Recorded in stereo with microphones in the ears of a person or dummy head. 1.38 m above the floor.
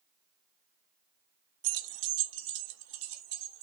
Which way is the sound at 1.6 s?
65° right (ahead or behind).